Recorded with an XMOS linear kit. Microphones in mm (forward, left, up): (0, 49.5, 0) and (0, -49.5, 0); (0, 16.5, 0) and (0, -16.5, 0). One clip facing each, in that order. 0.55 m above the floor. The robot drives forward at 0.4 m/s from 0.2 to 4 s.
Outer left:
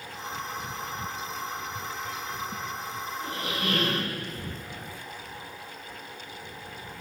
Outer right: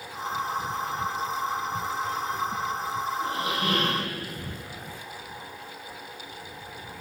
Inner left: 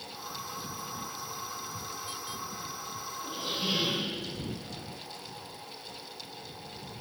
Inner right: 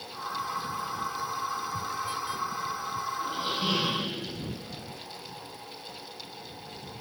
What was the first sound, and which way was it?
A squeak, 25° right (ahead or behind).